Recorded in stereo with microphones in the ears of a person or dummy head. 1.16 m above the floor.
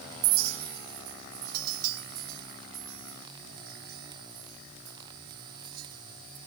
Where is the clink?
55° right (ahead or behind), 1.1 m.